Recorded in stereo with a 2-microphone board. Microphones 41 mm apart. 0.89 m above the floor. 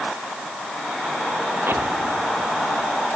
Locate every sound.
1.7 s an explosion: 75° right (ahead or behind)